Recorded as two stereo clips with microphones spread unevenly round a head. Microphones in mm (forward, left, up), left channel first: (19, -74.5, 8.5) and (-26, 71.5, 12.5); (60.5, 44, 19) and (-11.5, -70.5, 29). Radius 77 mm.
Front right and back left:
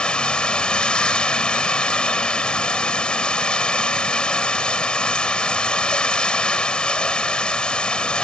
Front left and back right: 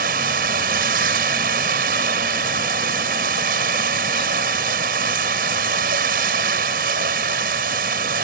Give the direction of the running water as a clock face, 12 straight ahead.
5 o'clock.